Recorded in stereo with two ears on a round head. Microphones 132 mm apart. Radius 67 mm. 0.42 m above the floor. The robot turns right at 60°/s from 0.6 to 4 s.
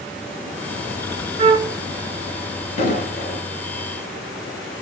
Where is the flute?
45° right (ahead or behind), 0.7 m; by 1.8 s 25° right (ahead or behind), 0.7 m.